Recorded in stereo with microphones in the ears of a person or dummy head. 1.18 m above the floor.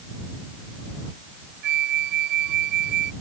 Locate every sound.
1.6 s a flute: 65° right (ahead or behind)